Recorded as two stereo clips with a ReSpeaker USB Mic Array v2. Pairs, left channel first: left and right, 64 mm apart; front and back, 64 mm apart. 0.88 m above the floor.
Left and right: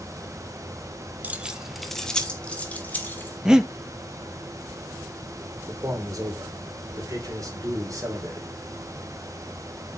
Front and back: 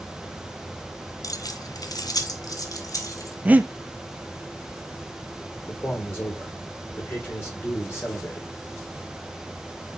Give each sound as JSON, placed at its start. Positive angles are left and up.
{"t": 1.2, "sound": "keys jangling", "azimuth_deg": -25, "distance_m": 0.7}
{"t": 3.5, "sound": "breathing", "azimuth_deg": -160, "distance_m": 0.6}
{"t": 5.7, "sound": "a man speaking", "azimuth_deg": -55, "distance_m": 3.0}